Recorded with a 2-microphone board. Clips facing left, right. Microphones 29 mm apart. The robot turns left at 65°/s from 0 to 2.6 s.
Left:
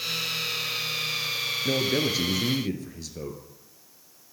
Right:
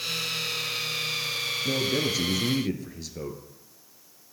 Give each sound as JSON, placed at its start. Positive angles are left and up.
{"t": 1.6, "sound": "a man speaking", "azimuth_deg": 55, "distance_m": 1.8}